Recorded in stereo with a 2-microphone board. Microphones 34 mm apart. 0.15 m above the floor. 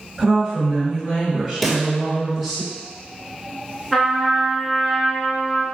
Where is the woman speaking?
5° right (ahead or behind), 1.5 m; by 2.6 s 5° left (ahead or behind), 1.8 m.